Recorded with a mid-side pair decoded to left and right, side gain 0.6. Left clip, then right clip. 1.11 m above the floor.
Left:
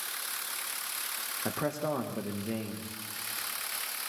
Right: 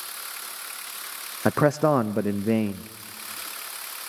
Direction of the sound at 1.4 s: 55° right.